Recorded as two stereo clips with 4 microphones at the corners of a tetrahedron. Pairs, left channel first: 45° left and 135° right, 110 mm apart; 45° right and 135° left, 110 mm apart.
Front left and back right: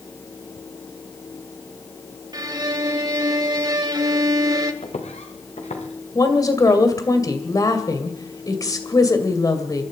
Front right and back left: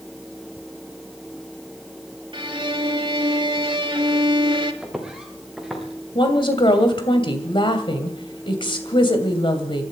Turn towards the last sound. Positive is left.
turn(degrees=-10)